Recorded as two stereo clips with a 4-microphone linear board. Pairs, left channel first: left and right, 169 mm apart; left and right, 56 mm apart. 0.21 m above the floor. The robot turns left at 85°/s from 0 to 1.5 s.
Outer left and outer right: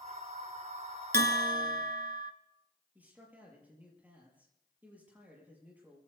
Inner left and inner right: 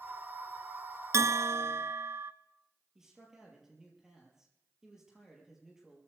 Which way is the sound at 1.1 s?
80° right.